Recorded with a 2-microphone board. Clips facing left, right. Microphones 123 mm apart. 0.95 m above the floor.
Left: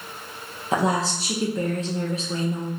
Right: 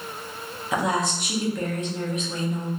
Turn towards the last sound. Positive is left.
turn(degrees=30)  # may be behind; listen again after turning